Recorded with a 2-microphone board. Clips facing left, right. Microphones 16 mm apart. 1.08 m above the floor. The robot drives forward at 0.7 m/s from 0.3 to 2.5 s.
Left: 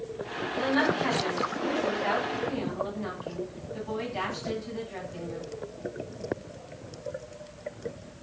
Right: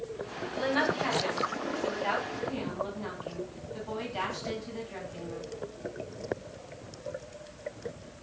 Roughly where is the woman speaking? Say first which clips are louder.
Left 2 dB; centre.